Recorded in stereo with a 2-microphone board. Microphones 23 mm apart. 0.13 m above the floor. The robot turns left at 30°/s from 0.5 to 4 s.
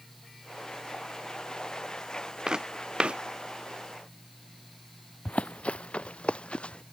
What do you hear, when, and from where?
2.5 s footsteps: 35° right (ahead or behind); by 3.2 s 60° right (ahead or behind)
5.2 s running footsteps: 75° left (ahead or behind); by 6.8 s 55° left (ahead or behind)